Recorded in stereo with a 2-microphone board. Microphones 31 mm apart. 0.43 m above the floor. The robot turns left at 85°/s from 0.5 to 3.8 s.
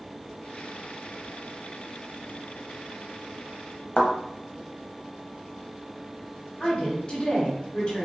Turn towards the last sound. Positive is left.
turn(degrees=35)  # may be behind; listen again after turning